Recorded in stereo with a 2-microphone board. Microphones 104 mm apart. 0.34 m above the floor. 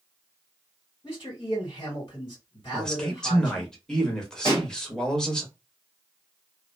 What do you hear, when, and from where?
1.0 s a man speaking: 45° left (ahead or behind), 1.9 m
2.7 s a man speaking: 5° left (ahead or behind), 0.8 m
4.5 s a pop: 40° left (ahead or behind), 1.6 m